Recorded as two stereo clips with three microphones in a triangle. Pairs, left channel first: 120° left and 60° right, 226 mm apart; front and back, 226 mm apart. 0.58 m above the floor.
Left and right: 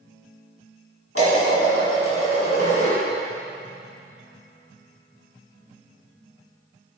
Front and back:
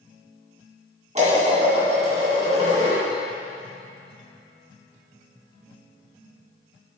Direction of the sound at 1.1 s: 120° left.